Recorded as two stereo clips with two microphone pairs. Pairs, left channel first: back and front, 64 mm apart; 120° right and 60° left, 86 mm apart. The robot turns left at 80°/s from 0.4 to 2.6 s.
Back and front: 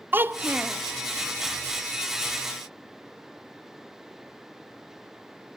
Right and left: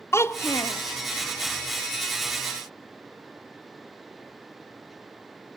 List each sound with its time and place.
0.1 s a child speaking: 55° right, 0.5 m; by 0.8 s 90° right, 0.5 m